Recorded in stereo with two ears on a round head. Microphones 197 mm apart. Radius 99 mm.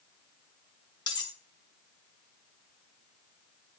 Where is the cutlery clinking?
20° left (ahead or behind), 1.5 m.